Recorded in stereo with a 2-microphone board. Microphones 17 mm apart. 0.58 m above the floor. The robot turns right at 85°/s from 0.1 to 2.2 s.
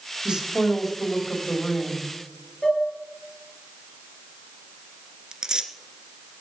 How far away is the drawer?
I don't hear a drawer.